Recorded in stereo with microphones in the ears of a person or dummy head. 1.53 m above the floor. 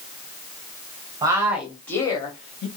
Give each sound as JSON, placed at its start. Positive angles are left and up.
{"t": 1.2, "sound": "a woman speaking", "side_deg": -20, "distance_m": 0.9}